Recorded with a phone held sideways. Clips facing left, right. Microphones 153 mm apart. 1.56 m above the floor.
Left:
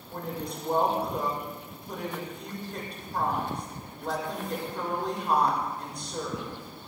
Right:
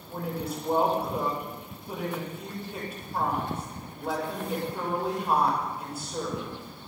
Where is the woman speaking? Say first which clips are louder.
Right 2 dB; 5° right (ahead or behind), 5.5 m.